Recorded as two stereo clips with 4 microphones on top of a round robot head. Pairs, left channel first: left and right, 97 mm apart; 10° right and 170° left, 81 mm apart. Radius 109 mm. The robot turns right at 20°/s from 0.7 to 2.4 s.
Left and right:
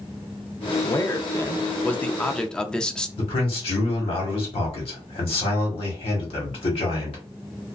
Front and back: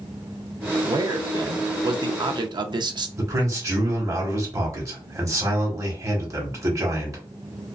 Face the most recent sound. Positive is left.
turn(degrees=115)